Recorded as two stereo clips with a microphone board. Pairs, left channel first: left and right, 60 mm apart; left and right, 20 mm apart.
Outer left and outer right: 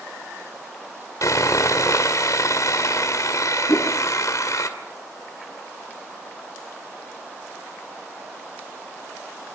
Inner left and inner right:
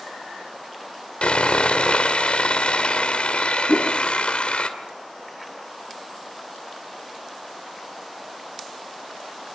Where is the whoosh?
75° left (ahead or behind), 2.5 m.